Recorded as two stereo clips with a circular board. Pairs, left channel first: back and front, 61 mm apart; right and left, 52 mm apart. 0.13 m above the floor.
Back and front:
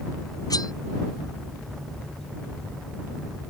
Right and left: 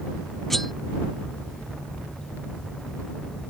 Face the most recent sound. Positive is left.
turn(degrees=-175)